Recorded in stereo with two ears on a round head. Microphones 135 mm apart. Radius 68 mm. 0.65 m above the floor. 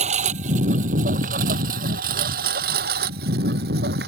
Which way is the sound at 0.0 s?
45° right (ahead or behind).